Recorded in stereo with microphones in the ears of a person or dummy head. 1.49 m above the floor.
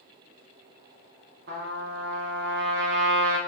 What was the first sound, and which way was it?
A trumpet, 65° right (ahead or behind).